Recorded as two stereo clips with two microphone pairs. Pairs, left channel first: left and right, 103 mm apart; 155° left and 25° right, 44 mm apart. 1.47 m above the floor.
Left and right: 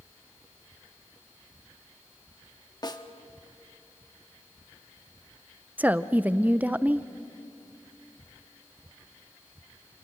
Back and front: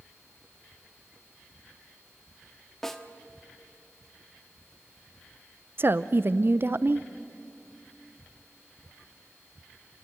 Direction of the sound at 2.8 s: 75° left.